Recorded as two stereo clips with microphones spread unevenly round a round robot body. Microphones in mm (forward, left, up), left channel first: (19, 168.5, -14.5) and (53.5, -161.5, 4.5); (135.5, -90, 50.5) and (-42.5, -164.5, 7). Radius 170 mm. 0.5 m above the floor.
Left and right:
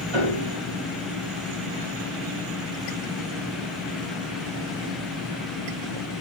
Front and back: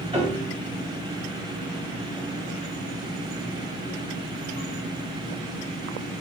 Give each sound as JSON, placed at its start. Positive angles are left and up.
{"t": 0.1, "sound": "a piano", "azimuth_deg": -95, "distance_m": 2.0}